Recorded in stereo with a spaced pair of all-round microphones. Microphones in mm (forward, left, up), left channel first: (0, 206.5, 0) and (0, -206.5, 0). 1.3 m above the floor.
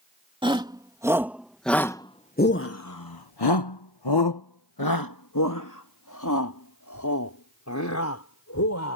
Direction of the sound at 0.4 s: 10° right (ahead or behind).